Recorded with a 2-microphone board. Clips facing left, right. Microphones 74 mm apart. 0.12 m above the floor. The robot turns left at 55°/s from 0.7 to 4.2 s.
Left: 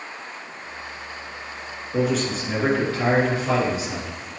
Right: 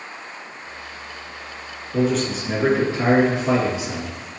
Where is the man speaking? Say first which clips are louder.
Right 2 dB; 20° left, 1.9 m; by 4.2 s 105° right, 1.9 m.